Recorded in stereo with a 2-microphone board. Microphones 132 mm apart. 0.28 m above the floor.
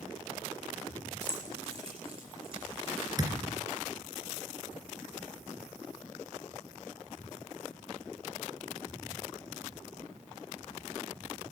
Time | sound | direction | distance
1.2 | keys jangling | 50° right (ahead or behind) | 3.5 m
3.2 | a thud | 30° right (ahead or behind) | 2 m